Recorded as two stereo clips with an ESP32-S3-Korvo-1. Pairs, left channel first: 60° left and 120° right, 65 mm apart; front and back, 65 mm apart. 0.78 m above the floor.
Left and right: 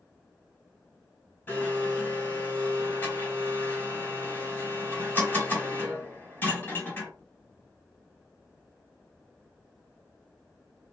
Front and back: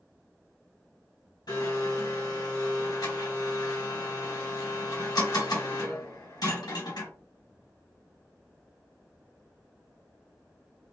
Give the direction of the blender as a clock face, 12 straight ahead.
12 o'clock.